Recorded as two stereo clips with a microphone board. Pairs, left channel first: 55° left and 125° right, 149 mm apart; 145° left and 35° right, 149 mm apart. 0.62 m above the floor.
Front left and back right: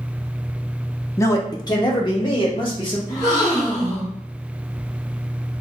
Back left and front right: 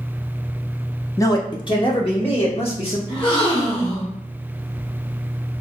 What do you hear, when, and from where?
1.2 s a man speaking: 100° left, 0.6 m; by 3.0 s 105° left, 1.6 m
3.1 s a gasp: 110° left, 1.4 m